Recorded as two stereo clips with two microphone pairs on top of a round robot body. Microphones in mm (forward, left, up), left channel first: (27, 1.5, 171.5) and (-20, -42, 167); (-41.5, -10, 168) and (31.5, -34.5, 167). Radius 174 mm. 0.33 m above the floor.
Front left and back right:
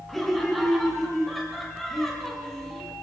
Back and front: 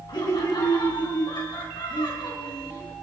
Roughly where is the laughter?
Behind left.